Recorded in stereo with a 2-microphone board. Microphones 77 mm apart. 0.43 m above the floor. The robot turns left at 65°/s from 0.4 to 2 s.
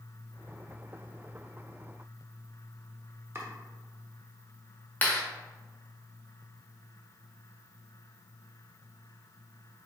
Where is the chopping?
30° right (ahead or behind), 0.8 m.